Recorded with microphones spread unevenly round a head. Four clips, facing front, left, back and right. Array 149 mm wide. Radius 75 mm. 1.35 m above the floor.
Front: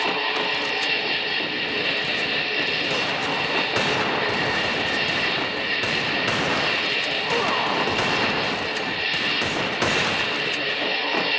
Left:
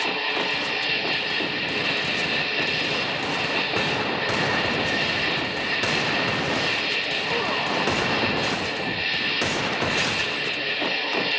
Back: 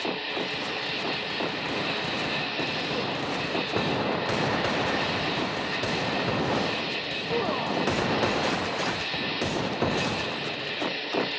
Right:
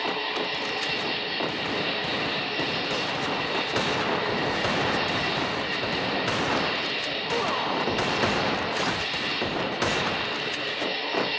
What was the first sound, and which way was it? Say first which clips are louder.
An insect: left 2 dB, front 6 dB; 50° left.